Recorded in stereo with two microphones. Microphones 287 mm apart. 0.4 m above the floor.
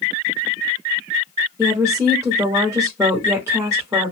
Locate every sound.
1.6 s a woman speaking: 10° right (ahead or behind), 0.7 m